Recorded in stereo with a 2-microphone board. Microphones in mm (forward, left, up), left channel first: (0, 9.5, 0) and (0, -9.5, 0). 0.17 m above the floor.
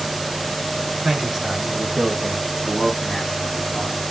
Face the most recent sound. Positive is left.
turn(degrees=40)  # may be behind; listen again after turning